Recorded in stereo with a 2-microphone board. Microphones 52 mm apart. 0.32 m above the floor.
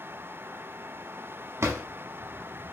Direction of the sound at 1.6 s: 50° right (ahead or behind).